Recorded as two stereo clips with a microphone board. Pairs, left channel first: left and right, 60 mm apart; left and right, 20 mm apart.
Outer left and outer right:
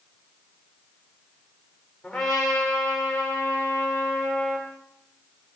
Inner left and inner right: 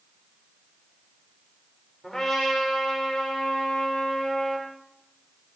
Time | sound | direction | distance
2.0 | a trumpet | 10° left (ahead or behind) | 6.5 m